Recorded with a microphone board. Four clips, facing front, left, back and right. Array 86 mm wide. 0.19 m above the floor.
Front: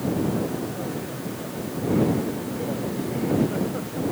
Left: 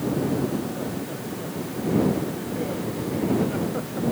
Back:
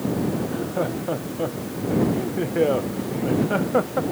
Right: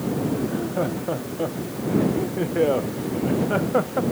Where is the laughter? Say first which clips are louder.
Right 3 dB, back 3 dB; 140° right.